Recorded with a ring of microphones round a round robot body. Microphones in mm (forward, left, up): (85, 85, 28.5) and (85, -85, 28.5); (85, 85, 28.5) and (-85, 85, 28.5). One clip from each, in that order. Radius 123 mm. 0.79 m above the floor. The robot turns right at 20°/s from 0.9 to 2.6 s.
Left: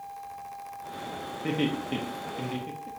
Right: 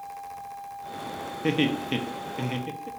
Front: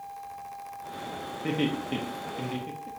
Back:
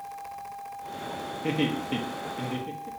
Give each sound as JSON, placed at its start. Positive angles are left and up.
{"t": 1.4, "sound": "laughter", "azimuth_deg": -90, "distance_m": 1.0}